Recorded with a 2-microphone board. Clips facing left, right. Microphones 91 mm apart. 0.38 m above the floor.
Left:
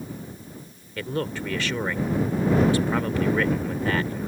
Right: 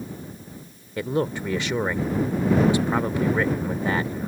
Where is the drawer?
No drawer in this recording.